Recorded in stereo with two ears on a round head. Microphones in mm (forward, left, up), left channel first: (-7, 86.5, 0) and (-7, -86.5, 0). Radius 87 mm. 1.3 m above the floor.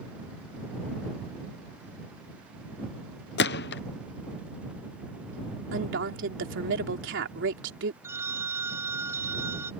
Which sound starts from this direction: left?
A gunshot, at 3.4 s.